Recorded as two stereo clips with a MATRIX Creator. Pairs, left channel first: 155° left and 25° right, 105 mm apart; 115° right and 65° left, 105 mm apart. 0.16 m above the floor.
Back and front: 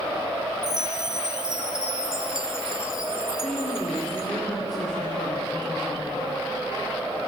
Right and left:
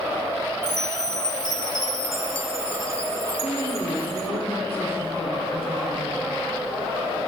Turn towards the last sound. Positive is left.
turn(degrees=-115)